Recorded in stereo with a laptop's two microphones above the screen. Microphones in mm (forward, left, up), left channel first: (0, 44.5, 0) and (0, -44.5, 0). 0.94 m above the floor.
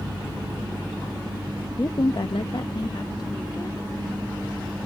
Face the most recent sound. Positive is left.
turn(degrees=45)  # may be behind; listen again after turning